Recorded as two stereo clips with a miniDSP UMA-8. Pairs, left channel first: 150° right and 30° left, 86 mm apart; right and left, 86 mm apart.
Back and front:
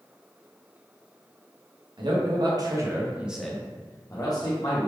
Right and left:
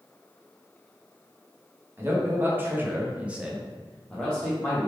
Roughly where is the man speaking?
Ahead left.